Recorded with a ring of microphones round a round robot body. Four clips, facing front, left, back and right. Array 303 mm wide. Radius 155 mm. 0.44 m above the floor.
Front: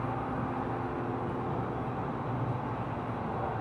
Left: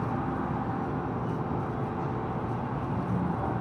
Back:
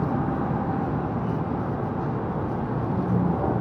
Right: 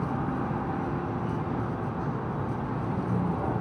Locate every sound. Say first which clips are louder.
0.0 s a vehicle: right 1 dB, back 8 dB; 175° right